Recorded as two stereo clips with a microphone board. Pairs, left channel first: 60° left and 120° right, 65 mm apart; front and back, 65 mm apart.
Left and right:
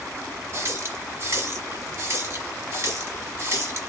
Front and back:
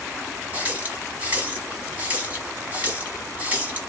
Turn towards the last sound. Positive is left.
turn(degrees=-125)